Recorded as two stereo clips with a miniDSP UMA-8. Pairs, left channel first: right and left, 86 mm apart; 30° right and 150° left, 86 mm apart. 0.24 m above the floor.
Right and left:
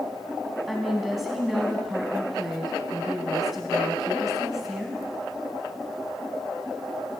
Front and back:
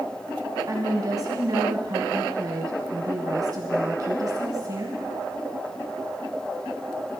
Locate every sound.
0.7 s a woman speaking: 175° left, 1.9 m